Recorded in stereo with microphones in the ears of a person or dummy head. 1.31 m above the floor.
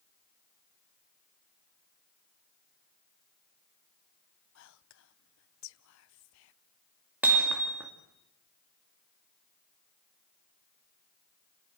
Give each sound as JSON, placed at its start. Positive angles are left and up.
{"t": 4.5, "sound": "whispering", "side_deg": 70, "distance_m": 0.6}
{"t": 7.2, "sound": "hammering", "side_deg": -5, "distance_m": 2.0}